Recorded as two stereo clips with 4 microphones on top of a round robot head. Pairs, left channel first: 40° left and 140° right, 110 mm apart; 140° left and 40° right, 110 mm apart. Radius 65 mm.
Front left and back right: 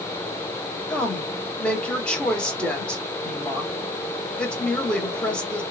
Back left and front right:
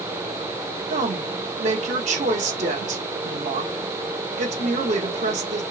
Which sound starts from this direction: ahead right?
A woman speaking, at 0.9 s.